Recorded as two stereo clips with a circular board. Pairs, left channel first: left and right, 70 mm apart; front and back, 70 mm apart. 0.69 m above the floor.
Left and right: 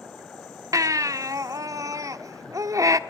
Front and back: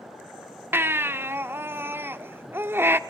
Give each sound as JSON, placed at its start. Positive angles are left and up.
{"t": 0.7, "sound": "a baby crying", "azimuth_deg": -125, "distance_m": 1.1}